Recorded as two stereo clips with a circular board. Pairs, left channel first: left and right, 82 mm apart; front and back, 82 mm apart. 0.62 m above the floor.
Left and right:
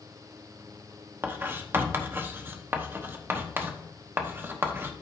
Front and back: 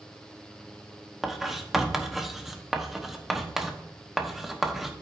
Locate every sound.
1.2 s writing: 100° right, 1.0 m